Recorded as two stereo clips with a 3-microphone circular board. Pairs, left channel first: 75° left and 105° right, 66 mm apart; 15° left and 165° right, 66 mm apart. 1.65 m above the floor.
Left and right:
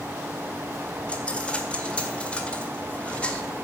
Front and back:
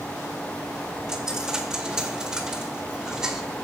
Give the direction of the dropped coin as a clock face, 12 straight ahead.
8 o'clock.